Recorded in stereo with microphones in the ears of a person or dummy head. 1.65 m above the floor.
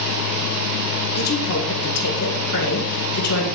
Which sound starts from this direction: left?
A woman speaking, at 1.1 s.